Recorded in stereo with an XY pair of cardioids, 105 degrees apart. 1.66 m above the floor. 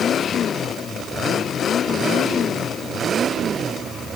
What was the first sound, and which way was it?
Only background noise.